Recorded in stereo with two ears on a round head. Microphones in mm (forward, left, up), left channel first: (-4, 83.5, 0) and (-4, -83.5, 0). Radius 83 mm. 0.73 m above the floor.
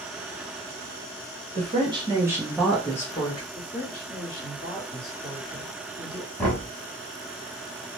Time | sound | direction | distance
1.6 | a woman speaking | 30° right (ahead or behind) | 1.1 m
3.5 | a woman speaking | 30° left (ahead or behind) | 1.6 m
6.4 | knocking | 5° left (ahead or behind) | 1.3 m